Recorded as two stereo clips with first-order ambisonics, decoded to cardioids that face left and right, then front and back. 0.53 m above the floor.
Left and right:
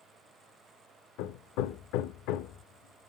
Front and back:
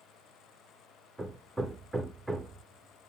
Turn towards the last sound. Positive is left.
turn(degrees=100)